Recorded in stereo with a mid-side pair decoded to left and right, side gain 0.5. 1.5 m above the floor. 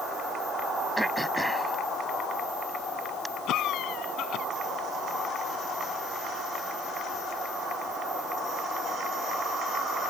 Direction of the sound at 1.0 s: 5° right.